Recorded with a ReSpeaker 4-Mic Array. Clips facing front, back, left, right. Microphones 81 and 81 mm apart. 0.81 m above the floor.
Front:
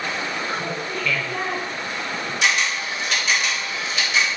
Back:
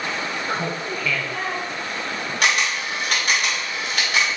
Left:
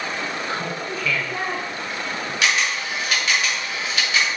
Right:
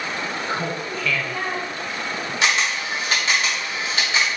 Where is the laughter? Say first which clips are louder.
Back 1 dB, right 1 dB; 150° right, 0.6 m; by 2.3 s 40° left, 1.0 m.